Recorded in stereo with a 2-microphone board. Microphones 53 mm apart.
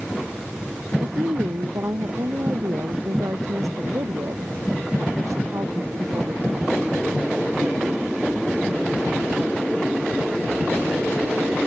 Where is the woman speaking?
80° right.